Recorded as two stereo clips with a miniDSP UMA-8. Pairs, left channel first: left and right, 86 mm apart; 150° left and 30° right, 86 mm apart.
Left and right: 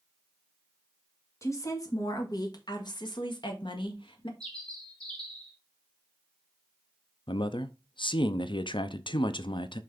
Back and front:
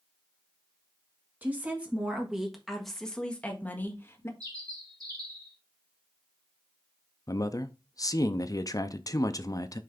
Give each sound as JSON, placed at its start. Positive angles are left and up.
{"t": 1.4, "sound": "a woman speaking", "azimuth_deg": 35, "distance_m": 2.0}
{"t": 4.4, "sound": "a bird", "azimuth_deg": 10, "distance_m": 2.0}
{"t": 7.3, "sound": "a man speaking", "azimuth_deg": 105, "distance_m": 0.6}